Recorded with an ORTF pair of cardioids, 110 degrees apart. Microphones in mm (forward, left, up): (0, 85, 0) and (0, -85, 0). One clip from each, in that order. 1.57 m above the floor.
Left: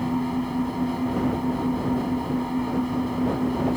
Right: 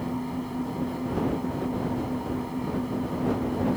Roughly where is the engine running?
Ahead left.